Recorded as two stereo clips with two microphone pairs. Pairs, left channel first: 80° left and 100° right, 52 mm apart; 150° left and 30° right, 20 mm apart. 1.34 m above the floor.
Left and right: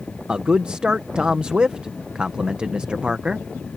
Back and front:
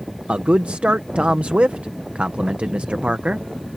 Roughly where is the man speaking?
Ahead right.